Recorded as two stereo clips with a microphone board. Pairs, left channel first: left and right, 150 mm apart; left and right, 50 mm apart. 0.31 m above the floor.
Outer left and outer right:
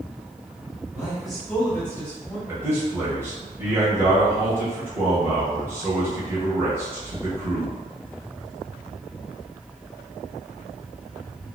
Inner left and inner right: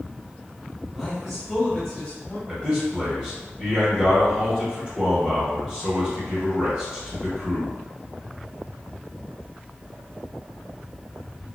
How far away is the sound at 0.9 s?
About 1.1 m.